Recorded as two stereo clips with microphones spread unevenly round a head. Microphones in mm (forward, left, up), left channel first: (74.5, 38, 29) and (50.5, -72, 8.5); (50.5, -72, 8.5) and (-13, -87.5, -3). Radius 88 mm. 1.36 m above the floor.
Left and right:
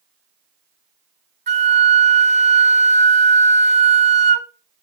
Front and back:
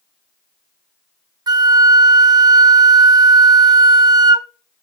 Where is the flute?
150° right, 0.7 m.